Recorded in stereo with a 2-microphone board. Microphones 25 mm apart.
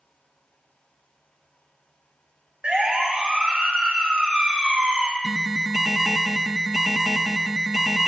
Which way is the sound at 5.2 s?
20° right (ahead or behind).